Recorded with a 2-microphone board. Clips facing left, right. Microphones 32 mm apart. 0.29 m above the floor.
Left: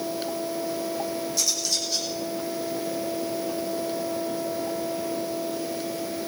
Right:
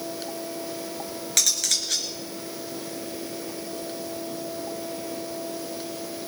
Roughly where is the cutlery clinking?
Right.